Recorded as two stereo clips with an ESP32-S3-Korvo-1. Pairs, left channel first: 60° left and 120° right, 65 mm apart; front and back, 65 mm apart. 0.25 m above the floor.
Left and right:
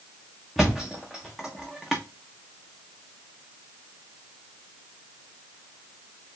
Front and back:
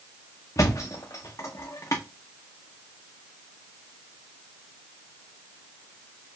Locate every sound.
0.6 s a thud: 30° right, 1.3 m